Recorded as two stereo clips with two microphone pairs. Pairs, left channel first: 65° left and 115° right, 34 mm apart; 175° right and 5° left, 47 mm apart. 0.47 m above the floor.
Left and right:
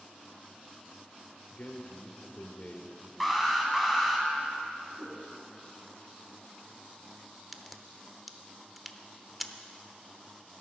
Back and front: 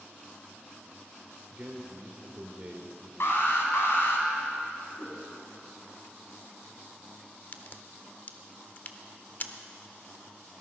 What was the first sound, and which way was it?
A man speaking, 55° left.